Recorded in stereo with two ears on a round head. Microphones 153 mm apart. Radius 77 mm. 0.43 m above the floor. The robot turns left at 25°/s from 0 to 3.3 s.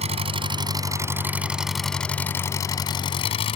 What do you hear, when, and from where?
0.0 s an engine running: 135° right; by 3.6 s 140° left